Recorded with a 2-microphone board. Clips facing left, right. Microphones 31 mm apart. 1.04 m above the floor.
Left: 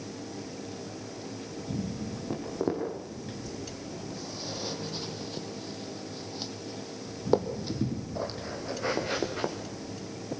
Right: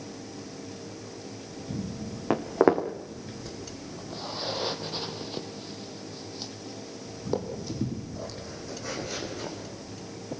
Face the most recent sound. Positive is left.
turn(degrees=50)  # may be behind; listen again after turning